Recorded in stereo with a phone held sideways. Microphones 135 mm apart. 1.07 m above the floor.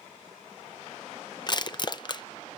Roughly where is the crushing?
Left.